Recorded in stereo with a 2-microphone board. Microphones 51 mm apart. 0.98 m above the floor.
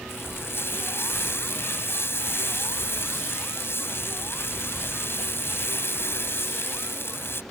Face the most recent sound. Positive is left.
turn(degrees=55)  # may be behind; listen again after turning